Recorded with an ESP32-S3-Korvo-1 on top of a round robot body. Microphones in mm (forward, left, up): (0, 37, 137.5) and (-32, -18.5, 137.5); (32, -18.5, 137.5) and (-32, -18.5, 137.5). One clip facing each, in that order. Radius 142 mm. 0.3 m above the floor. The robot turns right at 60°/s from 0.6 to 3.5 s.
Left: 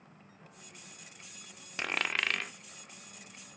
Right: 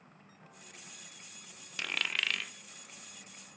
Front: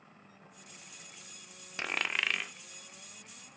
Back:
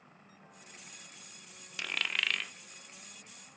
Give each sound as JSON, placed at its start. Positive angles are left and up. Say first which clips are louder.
{"t": 1.8, "sound": "a dropped coin", "louder": "left 3 dB, front 2 dB", "azimuth_deg": 25, "distance_m": 0.5}